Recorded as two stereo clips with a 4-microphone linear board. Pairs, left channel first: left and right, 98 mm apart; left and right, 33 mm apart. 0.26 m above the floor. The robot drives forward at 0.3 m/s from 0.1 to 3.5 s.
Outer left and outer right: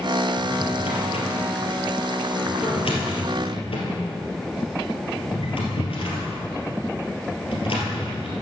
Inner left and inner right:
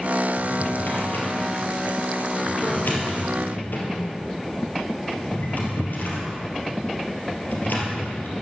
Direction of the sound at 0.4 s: 80° left.